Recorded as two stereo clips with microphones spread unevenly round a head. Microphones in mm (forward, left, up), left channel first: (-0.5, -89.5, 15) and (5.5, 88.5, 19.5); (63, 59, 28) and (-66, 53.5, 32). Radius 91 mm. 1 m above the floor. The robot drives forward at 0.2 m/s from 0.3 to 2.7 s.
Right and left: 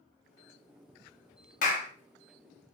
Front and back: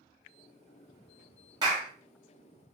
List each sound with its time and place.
1.6 s a clap: 120° right, 0.7 m; by 1.9 s 125° right, 0.8 m